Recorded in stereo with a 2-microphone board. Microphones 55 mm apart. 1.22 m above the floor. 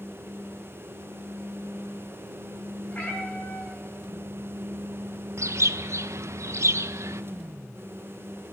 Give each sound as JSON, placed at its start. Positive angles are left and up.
{"t": 2.9, "sound": "a cat meowing", "side_deg": 30, "distance_m": 6.0}
{"t": 5.4, "sound": "a bird", "side_deg": -60, "distance_m": 0.5}